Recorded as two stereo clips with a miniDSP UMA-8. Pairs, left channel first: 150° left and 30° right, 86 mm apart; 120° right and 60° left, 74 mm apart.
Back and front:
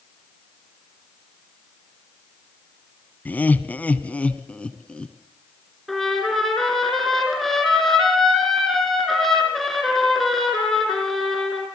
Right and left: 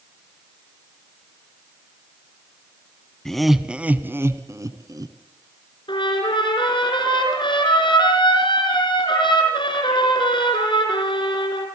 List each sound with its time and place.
3.2 s laughter: 170° left, 1.0 m; by 5.2 s 70° left, 1.6 m
5.9 s a trumpet: 120° right, 5 m